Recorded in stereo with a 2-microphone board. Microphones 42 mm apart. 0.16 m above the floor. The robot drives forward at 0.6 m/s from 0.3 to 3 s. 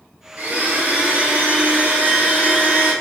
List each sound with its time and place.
0.4 s a blender: 45° right (ahead or behind), 1.3 m; by 2.9 s 20° right (ahead or behind), 2.5 m